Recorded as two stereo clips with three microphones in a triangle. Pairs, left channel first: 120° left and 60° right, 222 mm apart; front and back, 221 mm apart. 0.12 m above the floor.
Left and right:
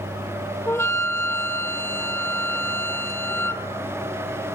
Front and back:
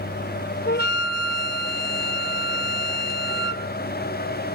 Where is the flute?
45° left, 0.6 m.